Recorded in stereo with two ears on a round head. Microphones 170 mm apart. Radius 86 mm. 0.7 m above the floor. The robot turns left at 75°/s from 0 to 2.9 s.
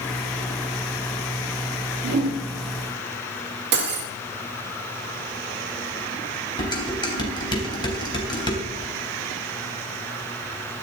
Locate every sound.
2.0 s a whoosh: 65° right (ahead or behind), 3 m; by 2.4 s 80° right, 3 m
3.7 s cutlery clinking: 70° right (ahead or behind), 1.2 m
6.6 s dishes clattering: 25° left (ahead or behind), 3 m